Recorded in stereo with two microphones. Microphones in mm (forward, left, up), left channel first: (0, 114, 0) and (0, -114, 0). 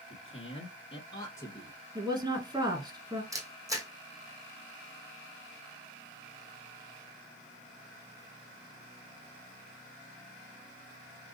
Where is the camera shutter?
15° right (ahead or behind), 1.6 m.